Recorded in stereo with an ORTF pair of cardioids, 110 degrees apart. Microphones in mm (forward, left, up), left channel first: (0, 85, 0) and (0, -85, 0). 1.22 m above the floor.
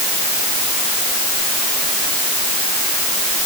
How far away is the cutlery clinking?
I don't hear cutlery clinking.